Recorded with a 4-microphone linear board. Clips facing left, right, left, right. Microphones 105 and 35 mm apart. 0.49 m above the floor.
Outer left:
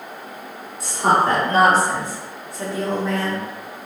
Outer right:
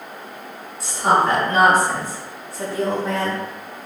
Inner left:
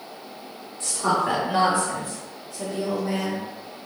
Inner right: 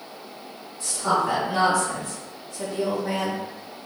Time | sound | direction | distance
0.8 | a woman speaking | 55° left (ahead or behind) | 2.0 m